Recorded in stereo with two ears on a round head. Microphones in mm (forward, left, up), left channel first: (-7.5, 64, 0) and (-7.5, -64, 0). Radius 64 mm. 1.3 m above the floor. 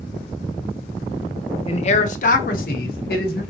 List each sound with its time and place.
1.7 s a man speaking: 40° left (ahead or behind), 0.7 m; by 3.4 s 80° left, 1.3 m